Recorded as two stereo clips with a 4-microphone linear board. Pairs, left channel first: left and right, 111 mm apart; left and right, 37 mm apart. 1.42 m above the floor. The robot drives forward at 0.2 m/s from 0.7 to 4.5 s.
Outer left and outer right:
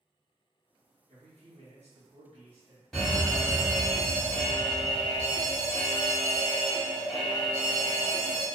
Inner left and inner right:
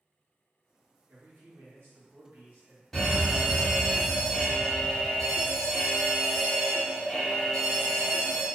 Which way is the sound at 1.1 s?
80° right.